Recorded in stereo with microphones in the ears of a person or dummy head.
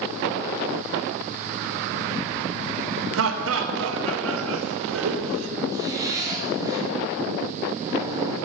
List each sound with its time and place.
3.1 s laughter: 70° right (ahead or behind), 1.2 m
5.7 s a zipper: 25° right (ahead or behind), 2 m